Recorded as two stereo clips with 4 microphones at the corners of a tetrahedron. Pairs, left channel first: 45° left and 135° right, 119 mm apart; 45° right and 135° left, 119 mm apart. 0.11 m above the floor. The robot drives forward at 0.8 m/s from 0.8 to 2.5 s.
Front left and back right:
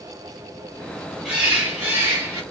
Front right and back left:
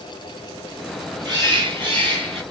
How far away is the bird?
About 1.8 m.